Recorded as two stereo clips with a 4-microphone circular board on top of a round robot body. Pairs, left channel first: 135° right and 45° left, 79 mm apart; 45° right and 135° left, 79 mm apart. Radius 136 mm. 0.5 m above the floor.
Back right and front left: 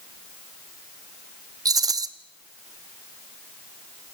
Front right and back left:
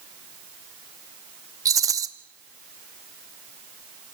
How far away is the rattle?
About 1.0 m.